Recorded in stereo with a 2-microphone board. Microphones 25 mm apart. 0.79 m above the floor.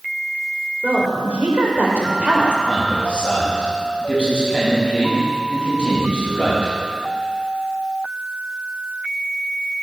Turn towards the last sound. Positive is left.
turn(degrees=45)  # may be behind; listen again after turning